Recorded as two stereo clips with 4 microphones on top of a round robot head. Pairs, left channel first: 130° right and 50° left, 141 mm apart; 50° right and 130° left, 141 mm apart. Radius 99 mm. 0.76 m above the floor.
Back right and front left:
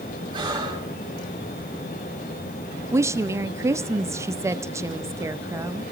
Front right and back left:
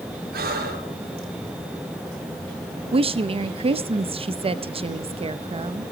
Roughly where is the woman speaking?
Left.